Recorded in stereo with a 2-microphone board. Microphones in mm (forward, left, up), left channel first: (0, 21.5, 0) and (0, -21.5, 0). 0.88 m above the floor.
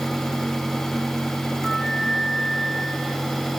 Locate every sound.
1.6 s a flute: centre (ahead or behind), 1.3 m